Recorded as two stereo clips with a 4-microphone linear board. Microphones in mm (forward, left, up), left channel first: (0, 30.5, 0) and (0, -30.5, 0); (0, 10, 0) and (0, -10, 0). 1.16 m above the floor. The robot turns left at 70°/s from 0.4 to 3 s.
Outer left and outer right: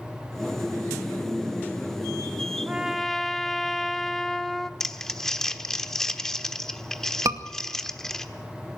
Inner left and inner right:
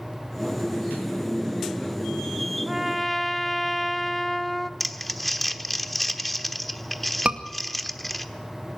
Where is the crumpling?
5° left (ahead or behind), 1.1 m.